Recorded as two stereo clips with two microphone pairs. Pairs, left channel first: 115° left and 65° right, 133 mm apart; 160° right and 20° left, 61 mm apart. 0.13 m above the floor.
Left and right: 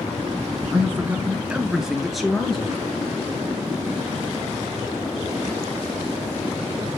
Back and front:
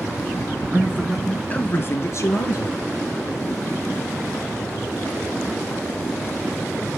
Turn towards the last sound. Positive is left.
turn(degrees=-160)